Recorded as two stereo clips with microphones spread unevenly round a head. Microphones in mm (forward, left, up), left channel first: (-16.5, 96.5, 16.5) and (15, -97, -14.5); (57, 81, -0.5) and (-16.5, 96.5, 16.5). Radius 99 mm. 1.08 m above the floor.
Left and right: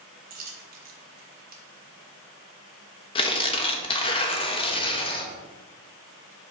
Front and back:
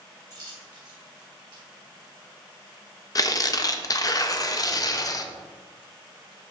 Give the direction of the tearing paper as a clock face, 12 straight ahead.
11 o'clock.